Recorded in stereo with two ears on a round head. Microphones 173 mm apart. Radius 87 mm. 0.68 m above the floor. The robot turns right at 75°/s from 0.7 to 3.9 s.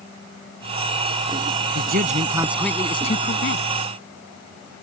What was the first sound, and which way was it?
A man speaking, 65° right.